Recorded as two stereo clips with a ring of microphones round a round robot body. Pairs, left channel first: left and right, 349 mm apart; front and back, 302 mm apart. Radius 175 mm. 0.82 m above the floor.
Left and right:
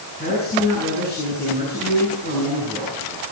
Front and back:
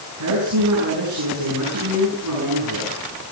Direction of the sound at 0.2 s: 155° left.